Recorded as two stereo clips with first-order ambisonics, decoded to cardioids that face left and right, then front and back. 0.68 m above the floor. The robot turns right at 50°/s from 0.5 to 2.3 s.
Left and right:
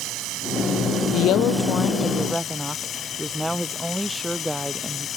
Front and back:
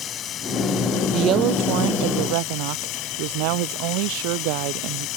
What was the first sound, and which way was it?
Running water, 55° right.